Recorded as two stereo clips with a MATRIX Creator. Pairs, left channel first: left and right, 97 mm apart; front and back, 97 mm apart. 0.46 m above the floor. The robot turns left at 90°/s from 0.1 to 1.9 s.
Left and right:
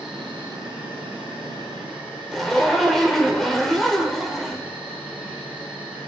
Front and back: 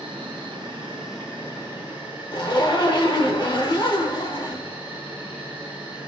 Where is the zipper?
Straight ahead, 1.1 m.